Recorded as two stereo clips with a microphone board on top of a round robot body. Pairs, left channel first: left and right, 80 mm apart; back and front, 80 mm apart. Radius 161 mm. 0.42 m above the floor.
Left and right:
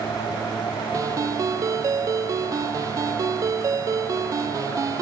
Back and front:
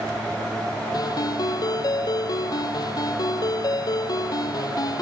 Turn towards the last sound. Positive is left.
turn(degrees=-140)